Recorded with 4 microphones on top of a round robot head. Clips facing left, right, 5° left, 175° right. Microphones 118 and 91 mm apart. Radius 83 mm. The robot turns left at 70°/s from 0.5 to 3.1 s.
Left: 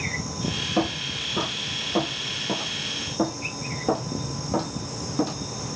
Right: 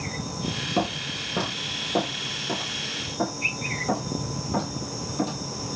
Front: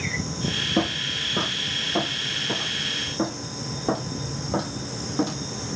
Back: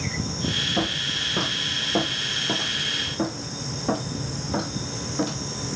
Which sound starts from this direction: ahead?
Footsteps, at 0.8 s.